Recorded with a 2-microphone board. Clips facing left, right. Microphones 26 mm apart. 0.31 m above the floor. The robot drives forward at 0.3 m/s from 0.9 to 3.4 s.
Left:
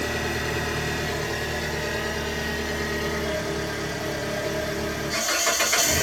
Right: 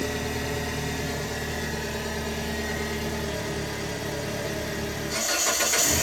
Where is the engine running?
50° left (ahead or behind), 1.2 m; by 6.0 s 35° left (ahead or behind), 1.7 m.